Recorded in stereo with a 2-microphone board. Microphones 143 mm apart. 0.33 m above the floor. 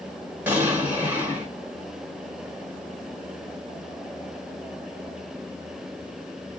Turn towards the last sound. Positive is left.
turn(degrees=-15)  # may be behind; listen again after turning